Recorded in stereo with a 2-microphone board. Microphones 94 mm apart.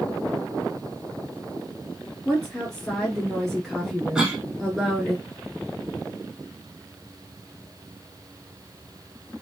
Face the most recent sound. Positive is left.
turn(degrees=-10)  # may be behind; listen again after turning